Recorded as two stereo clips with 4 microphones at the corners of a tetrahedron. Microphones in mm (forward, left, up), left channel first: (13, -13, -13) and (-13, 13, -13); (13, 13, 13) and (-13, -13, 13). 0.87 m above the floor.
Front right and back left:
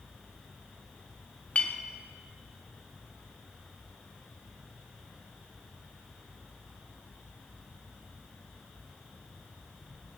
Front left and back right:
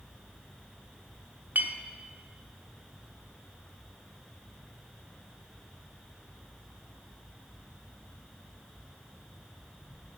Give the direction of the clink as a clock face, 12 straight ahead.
3 o'clock.